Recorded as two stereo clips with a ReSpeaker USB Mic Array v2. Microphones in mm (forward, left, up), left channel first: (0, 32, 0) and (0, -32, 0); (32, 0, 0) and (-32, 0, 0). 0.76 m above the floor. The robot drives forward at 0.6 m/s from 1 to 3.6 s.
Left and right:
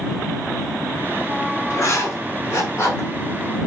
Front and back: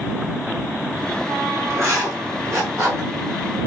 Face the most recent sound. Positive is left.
turn(degrees=140)